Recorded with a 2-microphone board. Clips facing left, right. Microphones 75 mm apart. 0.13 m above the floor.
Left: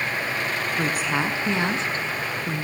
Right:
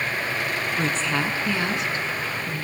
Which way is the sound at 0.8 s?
5° left (ahead or behind).